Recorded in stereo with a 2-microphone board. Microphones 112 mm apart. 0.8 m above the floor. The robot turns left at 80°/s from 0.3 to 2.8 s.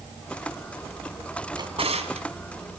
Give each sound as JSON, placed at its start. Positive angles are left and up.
{"t": 1.6, "sound": "a drawer", "side_deg": -40, "distance_m": 2.0}